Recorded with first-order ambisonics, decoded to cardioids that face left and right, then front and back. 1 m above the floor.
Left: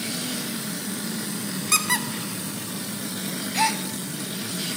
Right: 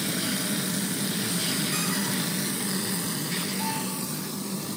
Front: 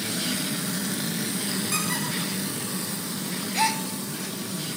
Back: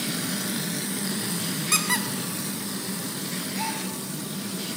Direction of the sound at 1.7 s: 115° left.